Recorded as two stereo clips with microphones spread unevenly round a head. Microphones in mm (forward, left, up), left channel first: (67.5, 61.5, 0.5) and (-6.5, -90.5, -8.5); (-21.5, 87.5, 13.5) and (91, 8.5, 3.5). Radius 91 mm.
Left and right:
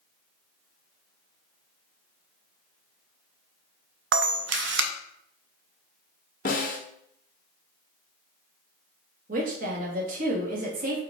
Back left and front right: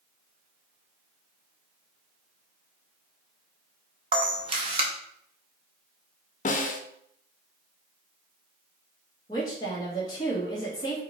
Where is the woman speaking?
150° right, 1.3 m.